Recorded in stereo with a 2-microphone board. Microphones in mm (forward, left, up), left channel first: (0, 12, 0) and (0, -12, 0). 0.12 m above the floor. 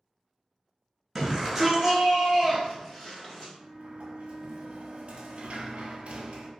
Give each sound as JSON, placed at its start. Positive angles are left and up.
{"t": 1.1, "sound": "a shout", "side_deg": 0, "distance_m": 1.3}
{"t": 3.6, "sound": "a sliding door", "side_deg": -60, "distance_m": 0.5}